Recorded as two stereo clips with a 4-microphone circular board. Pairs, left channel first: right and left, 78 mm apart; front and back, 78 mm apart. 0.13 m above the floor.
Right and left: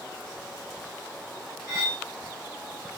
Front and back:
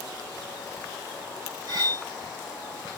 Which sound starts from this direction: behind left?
Cutlery clinking, at 1.7 s.